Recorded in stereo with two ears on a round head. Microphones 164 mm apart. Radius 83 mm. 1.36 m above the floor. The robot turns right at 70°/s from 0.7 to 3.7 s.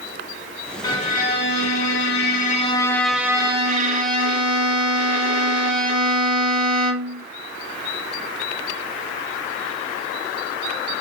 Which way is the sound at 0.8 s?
25° left.